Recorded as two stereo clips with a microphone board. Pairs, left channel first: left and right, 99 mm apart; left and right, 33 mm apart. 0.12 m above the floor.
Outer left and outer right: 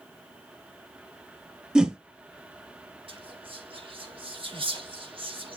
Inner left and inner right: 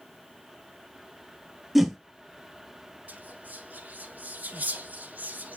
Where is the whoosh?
10° right (ahead or behind), 0.8 m.